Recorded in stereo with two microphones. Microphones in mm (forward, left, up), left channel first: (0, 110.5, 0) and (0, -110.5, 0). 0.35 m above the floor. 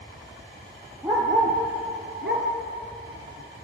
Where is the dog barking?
15° right (ahead or behind), 1.9 m; by 3.6 s 75° right (ahead or behind), 2 m.